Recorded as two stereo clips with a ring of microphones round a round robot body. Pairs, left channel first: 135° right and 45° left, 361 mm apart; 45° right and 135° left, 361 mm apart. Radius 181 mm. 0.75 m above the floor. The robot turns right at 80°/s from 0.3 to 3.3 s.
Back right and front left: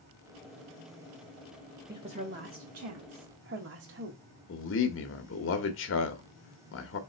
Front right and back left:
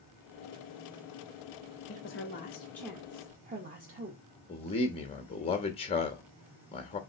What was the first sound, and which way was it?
A woman speaking, 35° right.